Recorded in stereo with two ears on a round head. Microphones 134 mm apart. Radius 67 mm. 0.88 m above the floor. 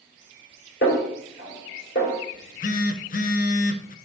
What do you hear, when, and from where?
0.8 s a snare drum: 75° left (ahead or behind), 3 m
2.3 s a phone buzzing: 60° left (ahead or behind), 0.6 m